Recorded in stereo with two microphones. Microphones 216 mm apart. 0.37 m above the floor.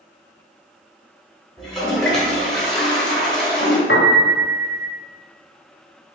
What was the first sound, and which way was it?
A toilet flushing, centre (ahead or behind).